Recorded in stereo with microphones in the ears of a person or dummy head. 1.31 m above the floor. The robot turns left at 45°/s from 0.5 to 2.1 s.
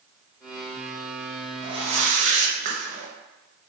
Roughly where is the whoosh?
Right.